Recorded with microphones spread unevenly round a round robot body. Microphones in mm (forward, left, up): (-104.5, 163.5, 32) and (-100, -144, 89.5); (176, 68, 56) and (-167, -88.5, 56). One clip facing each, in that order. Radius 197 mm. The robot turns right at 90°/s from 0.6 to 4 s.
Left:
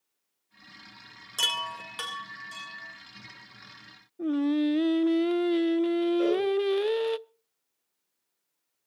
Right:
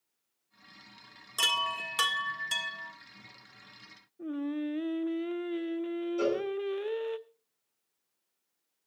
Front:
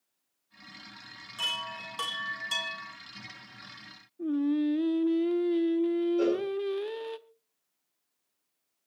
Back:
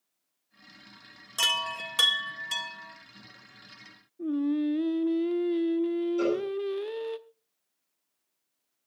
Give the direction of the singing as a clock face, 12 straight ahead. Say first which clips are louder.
Left 8 dB, even; 8 o'clock.